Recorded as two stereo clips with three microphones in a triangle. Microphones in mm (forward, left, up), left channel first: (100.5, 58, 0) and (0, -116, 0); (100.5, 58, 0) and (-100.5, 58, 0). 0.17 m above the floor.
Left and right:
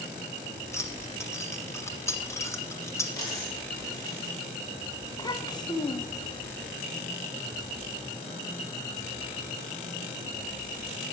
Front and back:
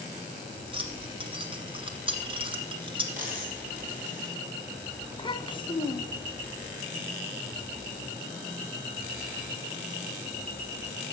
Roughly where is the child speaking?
Ahead.